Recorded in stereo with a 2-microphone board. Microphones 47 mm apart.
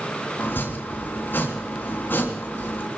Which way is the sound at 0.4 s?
50° left (ahead or behind).